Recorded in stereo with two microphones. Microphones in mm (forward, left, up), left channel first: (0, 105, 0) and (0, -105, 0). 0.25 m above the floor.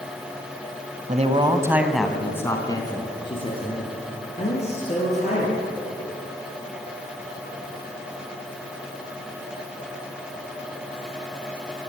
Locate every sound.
1.1 s a man speaking: 35° right (ahead or behind), 1.5 m; by 5.6 s 35° left (ahead or behind), 6.5 m